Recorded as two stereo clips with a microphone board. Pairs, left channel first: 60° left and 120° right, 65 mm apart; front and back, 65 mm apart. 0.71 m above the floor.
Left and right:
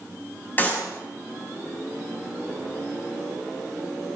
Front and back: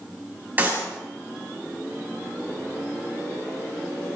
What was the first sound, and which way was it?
A clap, 120° left.